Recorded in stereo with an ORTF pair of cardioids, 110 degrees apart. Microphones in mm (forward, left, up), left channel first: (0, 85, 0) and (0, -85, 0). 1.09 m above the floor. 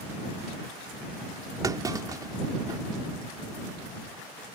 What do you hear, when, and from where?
1.6 s a clunk: 20° right